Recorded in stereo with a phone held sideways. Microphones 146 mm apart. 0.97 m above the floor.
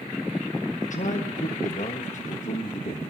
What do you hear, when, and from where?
0.8 s a man speaking: 60° left (ahead or behind), 1.3 m